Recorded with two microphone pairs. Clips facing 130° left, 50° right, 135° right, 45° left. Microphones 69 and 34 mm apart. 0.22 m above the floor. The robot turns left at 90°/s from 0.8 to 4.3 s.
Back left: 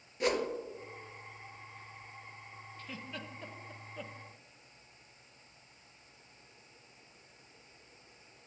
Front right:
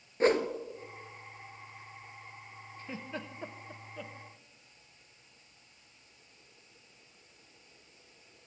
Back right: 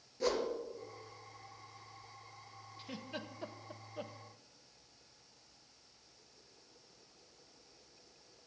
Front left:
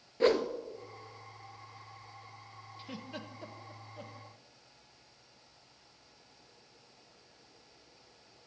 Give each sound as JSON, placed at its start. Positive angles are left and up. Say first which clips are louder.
{"t": 0.2, "sound": "a whoosh", "louder": "front right 5 dB, front left 7 dB", "azimuth_deg": 0, "distance_m": 0.7}
{"t": 2.8, "sound": "a giggle", "louder": "front right 4 dB, front left 1 dB", "azimuth_deg": -25, "distance_m": 0.5}